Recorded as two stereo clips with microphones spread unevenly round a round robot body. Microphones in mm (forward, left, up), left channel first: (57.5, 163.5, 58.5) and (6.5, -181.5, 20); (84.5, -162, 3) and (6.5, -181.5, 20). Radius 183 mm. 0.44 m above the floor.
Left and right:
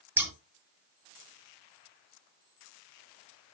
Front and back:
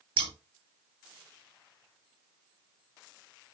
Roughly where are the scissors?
Behind.